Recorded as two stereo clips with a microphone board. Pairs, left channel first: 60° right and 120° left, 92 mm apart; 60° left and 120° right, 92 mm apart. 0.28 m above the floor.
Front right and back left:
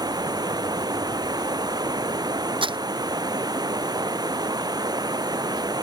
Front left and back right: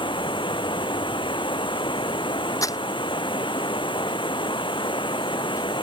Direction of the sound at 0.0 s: 80° left.